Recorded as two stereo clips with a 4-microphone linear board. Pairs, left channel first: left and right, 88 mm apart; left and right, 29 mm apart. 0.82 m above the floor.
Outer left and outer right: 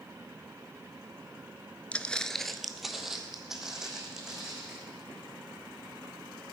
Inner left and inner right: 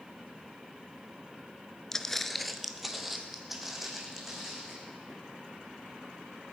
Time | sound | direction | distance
1.9 | footsteps | 15° left (ahead or behind) | 0.8 m